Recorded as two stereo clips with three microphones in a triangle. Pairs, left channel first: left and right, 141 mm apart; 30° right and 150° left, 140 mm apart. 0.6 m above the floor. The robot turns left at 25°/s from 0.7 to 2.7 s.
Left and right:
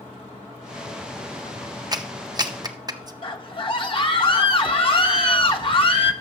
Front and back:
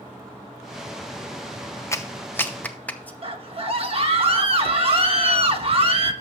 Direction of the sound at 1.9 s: 80° right.